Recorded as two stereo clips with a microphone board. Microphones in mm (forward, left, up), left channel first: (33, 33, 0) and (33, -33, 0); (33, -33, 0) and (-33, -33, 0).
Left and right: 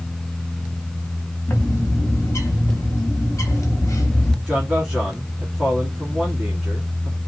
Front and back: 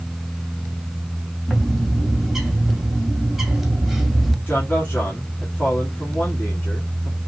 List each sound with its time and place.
1.5 s a bird: 95° left, 0.9 m
4.5 s a man speaking: 20° right, 1.1 m